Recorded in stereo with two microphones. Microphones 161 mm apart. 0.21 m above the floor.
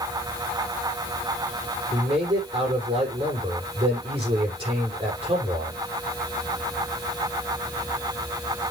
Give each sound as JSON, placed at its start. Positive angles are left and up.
{"t": 1.9, "sound": "a man speaking", "side_deg": -35, "distance_m": 6.5}